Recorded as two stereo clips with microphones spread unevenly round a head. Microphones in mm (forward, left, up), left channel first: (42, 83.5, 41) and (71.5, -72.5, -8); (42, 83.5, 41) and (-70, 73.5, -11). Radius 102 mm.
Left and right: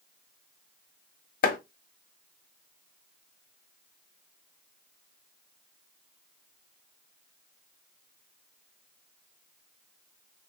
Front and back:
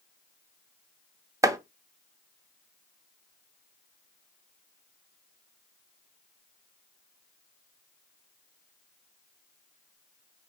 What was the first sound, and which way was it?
Chopping, 110° left.